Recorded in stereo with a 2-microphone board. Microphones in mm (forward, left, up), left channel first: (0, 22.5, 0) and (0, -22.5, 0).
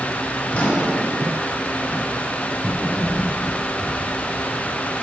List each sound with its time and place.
0.5 s a microwave: 35° left (ahead or behind), 1.1 m